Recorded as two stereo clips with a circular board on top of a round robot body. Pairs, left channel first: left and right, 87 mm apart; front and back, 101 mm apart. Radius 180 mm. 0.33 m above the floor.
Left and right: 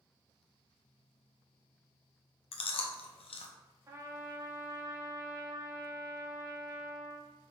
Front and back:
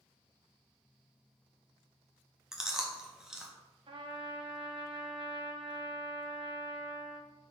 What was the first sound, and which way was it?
Chewing, 95° left.